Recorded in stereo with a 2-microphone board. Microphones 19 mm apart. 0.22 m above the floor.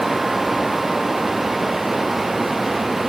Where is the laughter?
I don't hear laughter.